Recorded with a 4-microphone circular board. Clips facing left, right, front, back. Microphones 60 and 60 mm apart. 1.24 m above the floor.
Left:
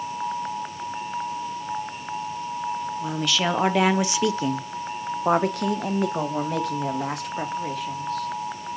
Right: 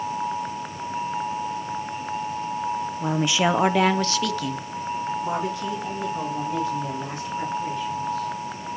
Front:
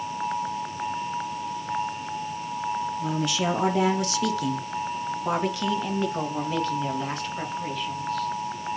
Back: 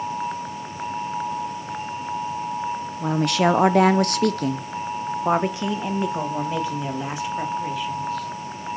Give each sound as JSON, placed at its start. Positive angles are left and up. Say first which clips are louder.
{"t": 3.0, "sound": "a woman speaking", "louder": "right 4 dB, back 10 dB", "azimuth_deg": -145, "distance_m": 0.8}